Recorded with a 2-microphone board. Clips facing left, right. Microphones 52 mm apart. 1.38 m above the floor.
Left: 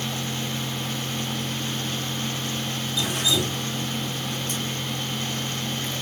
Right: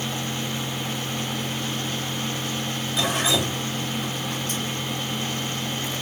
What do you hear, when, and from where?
3.0 s dripping: 70° right (ahead or behind), 2 m